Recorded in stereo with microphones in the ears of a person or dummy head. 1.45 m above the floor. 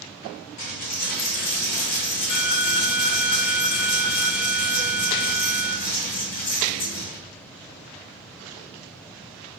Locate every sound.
0.6 s a dropped coin: 40° left (ahead or behind), 0.9 m